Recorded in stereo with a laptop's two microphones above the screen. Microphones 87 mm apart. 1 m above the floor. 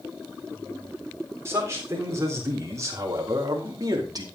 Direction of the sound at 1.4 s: 30° right (ahead or behind).